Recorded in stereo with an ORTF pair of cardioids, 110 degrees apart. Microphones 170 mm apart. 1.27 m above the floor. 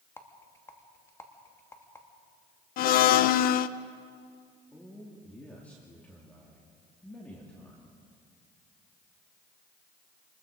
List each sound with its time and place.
0.2 s a rattle: 15° left, 2.5 m
2.8 s a blender: 65° left, 0.7 m
4.7 s a man speaking: 10° left, 3 m